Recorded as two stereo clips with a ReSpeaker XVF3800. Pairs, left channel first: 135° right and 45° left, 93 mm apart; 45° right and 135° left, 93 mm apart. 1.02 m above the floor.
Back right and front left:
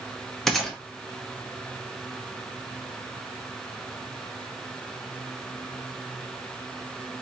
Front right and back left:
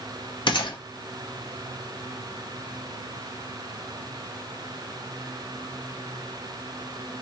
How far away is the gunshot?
About 0.9 m.